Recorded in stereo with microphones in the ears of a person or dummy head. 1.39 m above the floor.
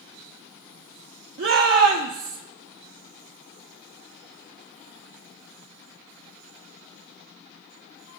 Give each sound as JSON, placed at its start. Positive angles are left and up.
{"t": 1.4, "sound": "a shout", "side_deg": -50, "distance_m": 0.8}